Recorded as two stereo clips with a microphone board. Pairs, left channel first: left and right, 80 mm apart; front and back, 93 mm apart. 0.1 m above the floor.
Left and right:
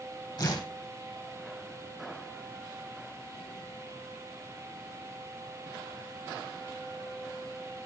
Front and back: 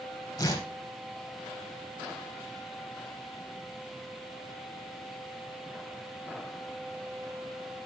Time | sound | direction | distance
0.4 | tearing paper | 50° left | 3.5 m